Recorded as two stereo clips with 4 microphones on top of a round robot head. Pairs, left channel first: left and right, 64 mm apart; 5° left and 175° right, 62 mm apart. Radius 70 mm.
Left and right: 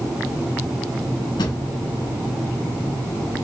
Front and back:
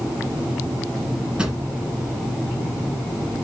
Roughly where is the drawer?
Left.